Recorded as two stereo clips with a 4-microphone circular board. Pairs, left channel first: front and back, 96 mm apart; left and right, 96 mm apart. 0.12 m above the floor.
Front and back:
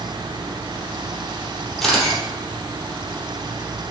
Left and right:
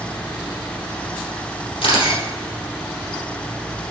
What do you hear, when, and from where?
1.8 s a camera shutter: 90° left, 3.5 m